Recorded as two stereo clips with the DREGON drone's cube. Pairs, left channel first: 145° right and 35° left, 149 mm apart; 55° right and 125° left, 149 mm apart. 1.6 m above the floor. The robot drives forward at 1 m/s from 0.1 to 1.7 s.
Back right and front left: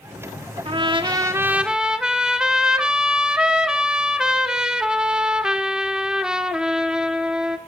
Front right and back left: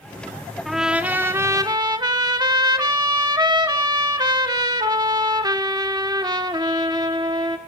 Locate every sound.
0.7 s a trumpet: 35° left, 1.5 m; by 7.6 s 115° left, 1.3 m